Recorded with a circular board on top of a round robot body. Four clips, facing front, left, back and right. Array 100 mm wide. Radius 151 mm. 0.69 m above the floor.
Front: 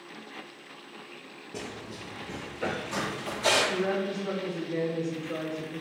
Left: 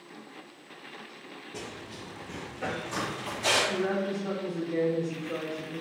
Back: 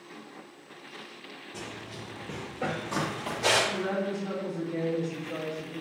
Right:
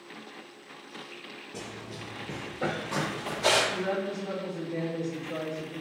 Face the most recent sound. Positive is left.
turn(degrees=50)